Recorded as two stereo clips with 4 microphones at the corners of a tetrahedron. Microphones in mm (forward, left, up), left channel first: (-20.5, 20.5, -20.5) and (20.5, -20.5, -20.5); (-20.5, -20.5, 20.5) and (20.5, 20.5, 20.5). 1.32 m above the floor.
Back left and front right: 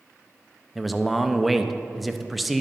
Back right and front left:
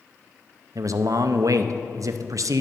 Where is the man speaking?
45° left, 0.5 m.